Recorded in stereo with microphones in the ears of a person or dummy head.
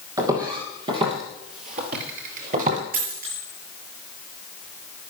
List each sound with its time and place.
0.2 s footsteps: 20° right (ahead or behind), 3.5 m; by 2.8 s 40° right (ahead or behind), 2 m
2.9 s a dropped coin: 55° right (ahead or behind), 8.5 m